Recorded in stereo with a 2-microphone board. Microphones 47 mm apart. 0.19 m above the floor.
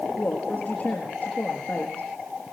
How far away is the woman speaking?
About 4.5 m.